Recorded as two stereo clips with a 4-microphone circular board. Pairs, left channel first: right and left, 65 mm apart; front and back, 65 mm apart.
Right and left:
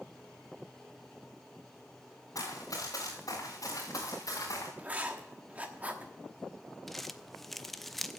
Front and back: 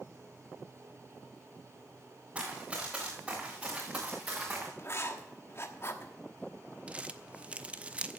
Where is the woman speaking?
No woman speaking in this recording.